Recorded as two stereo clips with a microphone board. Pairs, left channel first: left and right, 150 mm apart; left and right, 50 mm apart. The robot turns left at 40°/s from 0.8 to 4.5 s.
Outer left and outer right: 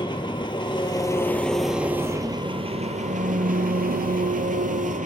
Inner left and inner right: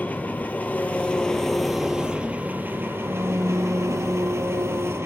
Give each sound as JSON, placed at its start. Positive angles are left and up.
{"t": 0.0, "sound": "an engine running", "azimuth_deg": 35, "distance_m": 1.0}